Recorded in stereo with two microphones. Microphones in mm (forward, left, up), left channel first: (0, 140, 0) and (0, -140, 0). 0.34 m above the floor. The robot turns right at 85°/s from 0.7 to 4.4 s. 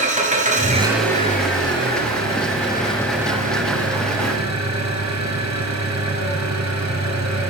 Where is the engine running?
25° right, 6 m; by 7.5 s 70° right, 6 m.